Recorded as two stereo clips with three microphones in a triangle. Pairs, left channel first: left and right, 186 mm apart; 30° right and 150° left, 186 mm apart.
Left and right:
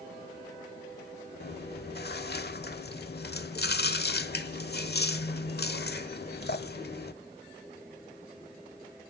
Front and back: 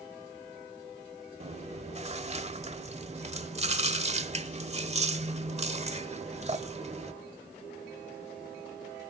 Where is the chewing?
100° left, 1.1 m.